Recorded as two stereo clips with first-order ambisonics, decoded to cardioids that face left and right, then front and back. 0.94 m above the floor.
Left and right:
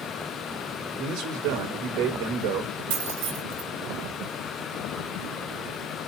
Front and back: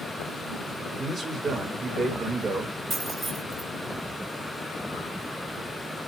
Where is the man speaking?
110° right, 4.5 m.